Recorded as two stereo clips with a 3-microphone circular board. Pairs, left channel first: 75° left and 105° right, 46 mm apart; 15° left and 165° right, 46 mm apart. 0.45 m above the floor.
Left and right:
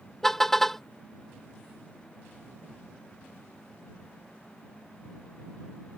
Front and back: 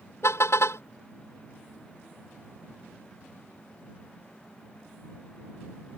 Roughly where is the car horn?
Ahead.